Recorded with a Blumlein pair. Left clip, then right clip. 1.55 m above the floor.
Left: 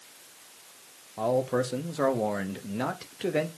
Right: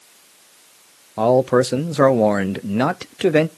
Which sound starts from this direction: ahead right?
A man speaking, at 1.2 s.